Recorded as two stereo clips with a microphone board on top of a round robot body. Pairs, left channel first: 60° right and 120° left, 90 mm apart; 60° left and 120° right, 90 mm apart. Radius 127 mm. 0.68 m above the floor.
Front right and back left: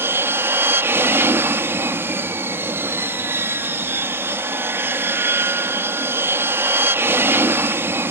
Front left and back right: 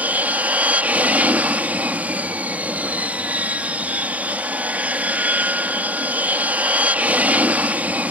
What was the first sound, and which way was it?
An aircraft, 175° left.